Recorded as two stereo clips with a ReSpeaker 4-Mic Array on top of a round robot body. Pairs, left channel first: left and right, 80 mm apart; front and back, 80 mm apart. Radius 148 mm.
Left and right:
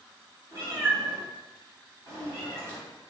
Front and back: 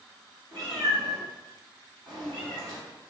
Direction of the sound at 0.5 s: 150° right.